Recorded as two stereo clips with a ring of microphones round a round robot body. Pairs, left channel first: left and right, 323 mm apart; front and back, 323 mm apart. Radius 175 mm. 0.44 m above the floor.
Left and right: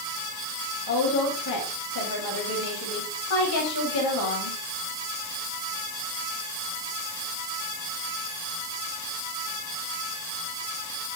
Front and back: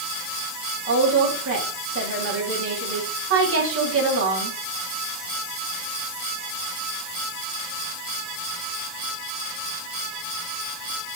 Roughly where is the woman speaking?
Behind left.